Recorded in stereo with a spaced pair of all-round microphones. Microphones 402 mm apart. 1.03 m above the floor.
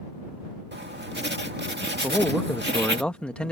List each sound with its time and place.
0.7 s writing: 25° right (ahead or behind)
2.0 s a man speaking: 5° left (ahead or behind)